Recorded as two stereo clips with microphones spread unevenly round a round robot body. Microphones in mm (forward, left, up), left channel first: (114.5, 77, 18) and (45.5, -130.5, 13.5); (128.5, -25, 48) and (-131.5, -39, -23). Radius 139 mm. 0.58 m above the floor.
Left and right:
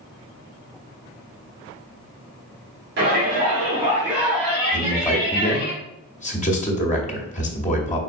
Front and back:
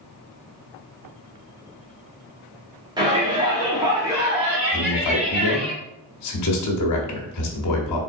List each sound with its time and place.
3.0 s a shout: 125° right, 1.0 m; by 5.7 s 105° left, 1.2 m
4.7 s a man speaking: 20° left, 1.0 m